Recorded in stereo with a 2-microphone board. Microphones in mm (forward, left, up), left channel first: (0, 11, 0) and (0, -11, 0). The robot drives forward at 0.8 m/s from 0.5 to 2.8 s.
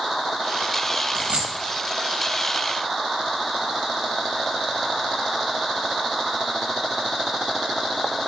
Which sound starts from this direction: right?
A dropped coin, at 1.1 s.